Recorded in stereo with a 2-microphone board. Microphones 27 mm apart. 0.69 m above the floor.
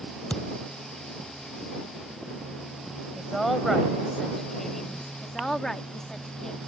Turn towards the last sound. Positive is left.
turn(degrees=20)  # may be behind; listen again after turning